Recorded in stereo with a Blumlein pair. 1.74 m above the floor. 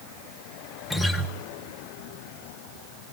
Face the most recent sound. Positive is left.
turn(degrees=15)